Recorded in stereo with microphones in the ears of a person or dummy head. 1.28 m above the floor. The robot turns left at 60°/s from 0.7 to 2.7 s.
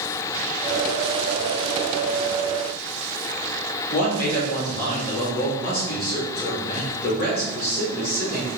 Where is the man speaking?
50° left (ahead or behind), 3 m.